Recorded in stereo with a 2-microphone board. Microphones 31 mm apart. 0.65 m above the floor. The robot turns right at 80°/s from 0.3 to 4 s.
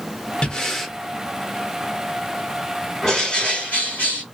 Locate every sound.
0.4 s breathing: 145° left, 0.8 m; by 0.9 s 175° right, 0.8 m
3.0 s a bird: 10° left, 1.9 m; by 4.2 s 85° left, 1.9 m